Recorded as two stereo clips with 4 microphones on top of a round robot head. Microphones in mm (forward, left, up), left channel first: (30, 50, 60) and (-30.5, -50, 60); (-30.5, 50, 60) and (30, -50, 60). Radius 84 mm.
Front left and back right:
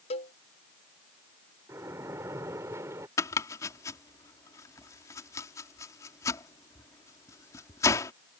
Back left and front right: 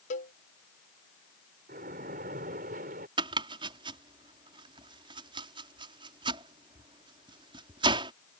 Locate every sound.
0.1 s a cowbell: 100° left
1.7 s a splash: 50° right
3.2 s chopping: 5° right